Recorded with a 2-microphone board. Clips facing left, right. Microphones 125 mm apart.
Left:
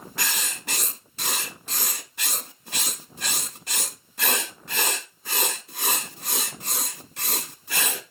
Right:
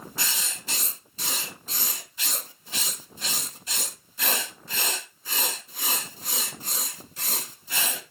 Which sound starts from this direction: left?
Writing, at 0.2 s.